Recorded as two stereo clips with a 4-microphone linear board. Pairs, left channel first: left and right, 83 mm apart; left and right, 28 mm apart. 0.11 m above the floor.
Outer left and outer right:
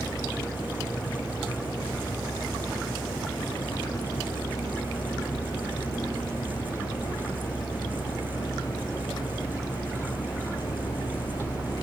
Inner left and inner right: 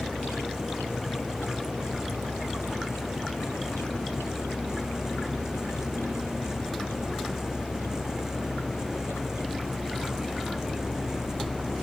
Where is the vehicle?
45° left (ahead or behind); by 11.8 s 50° left (ahead or behind).